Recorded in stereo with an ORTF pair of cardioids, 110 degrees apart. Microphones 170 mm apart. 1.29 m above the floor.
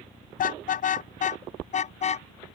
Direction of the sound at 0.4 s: 55° left.